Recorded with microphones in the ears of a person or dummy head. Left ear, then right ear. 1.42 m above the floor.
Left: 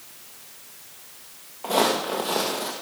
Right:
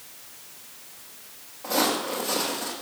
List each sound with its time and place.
1.6 s footsteps: 30° left (ahead or behind), 2 m; by 2.7 s 25° left (ahead or behind), 2.5 m